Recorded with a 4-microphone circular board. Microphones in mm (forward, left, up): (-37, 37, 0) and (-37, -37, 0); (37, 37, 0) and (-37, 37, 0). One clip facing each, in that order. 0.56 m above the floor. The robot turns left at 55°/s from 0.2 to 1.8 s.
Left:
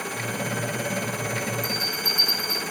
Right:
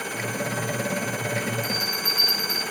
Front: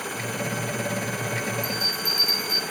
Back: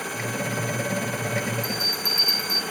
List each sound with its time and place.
1.6 s a bell: 45° left, 8.5 m; by 2.6 s 35° left, 8.5 m